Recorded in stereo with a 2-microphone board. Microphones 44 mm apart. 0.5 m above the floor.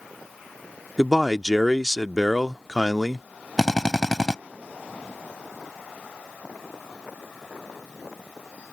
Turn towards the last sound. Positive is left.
turn(degrees=10)  # may be behind; listen again after turning